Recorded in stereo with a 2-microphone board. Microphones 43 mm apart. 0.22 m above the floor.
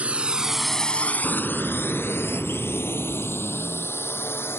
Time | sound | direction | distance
0.0 | a drone | 35° right (ahead or behind) | ?
1.2 | an explosion | 5° right (ahead or behind) | ?